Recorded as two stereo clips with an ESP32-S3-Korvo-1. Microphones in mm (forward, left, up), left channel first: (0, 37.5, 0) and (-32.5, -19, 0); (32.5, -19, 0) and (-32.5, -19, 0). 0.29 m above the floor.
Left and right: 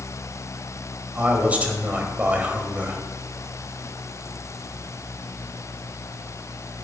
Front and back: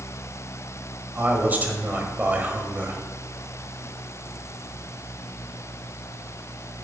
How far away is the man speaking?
About 1.4 m.